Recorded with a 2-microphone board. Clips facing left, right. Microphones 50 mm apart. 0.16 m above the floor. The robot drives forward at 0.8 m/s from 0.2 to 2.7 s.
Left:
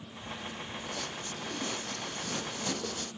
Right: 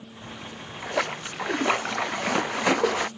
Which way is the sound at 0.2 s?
80° right.